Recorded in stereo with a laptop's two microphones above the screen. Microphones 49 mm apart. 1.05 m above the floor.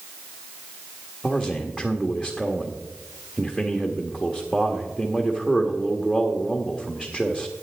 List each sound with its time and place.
1.2 s a man speaking: 5° right (ahead or behind), 1.5 m